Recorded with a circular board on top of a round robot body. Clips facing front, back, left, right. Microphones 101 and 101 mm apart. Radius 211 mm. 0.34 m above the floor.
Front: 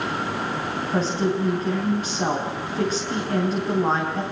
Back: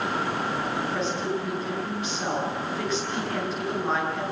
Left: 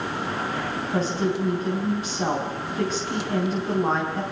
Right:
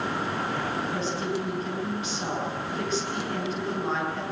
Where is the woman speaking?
45° left, 5 m.